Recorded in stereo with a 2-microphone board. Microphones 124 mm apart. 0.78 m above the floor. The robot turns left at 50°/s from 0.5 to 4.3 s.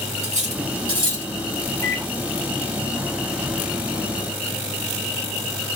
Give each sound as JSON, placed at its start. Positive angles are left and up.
{"t": 0.2, "sound": "cutlery clinking", "side_deg": -65, "distance_m": 1.2}
{"t": 1.8, "sound": "a microwave", "side_deg": 25, "distance_m": 0.7}